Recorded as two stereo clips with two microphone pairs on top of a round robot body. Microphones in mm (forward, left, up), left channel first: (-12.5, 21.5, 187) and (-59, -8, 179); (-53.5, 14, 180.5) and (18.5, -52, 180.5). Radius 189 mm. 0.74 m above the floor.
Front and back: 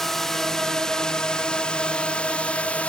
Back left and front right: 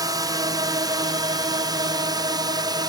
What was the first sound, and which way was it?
A drone, 55° right.